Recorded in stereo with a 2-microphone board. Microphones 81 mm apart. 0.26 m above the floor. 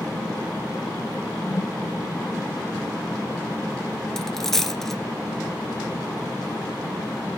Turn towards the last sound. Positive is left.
turn(degrees=5)  # may be behind; listen again after turning